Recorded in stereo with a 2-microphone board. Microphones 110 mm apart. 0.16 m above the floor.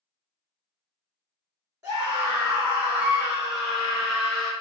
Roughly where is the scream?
Right.